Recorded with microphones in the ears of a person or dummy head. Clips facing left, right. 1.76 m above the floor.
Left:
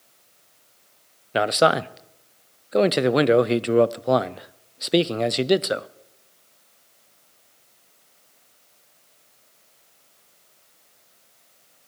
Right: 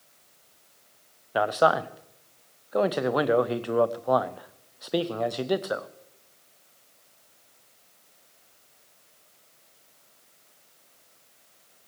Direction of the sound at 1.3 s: 35° left (ahead or behind).